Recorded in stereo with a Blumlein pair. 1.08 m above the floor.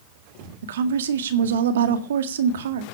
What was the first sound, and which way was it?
A woman speaking, 60° right.